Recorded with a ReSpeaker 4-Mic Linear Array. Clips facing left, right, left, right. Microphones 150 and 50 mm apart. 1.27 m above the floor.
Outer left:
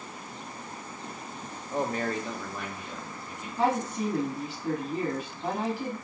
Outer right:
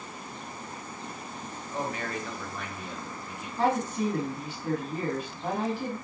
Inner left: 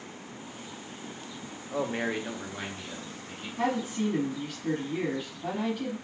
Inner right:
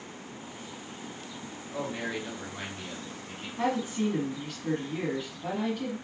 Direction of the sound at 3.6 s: Centre (ahead or behind).